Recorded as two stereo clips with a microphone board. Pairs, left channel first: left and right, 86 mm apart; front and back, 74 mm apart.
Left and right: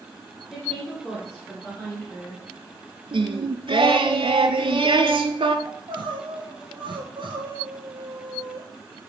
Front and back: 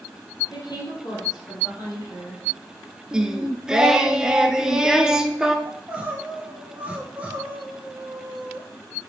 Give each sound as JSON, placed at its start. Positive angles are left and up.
{"t": 0.5, "sound": "a woman speaking", "azimuth_deg": 15, "distance_m": 2.5}
{"t": 3.1, "sound": "singing", "azimuth_deg": -95, "distance_m": 0.6}
{"t": 5.7, "sound": "crying", "azimuth_deg": -105, "distance_m": 1.2}